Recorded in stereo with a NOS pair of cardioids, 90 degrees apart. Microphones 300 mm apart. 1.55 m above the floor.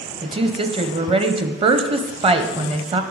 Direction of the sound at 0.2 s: 20° right.